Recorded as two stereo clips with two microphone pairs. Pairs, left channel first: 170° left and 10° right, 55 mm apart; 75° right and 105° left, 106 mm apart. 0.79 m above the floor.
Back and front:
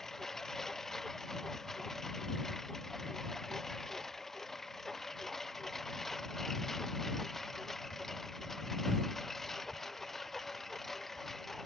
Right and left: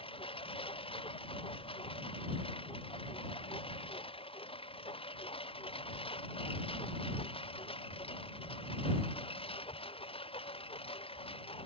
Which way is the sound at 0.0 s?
105° right.